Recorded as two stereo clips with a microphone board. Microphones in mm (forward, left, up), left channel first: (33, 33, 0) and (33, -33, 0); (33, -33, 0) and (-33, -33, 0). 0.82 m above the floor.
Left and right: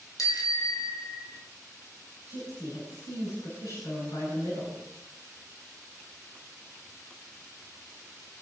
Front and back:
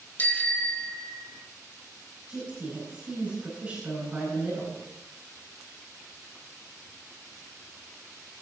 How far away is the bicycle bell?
About 3 m.